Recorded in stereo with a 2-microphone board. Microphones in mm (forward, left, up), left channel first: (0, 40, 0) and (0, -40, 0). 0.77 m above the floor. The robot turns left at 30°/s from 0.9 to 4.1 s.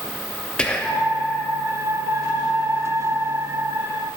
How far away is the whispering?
About 0.8 m.